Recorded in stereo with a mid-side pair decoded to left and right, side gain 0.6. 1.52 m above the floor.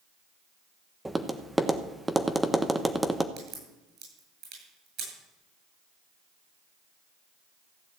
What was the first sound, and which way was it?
Tapping, 10° right.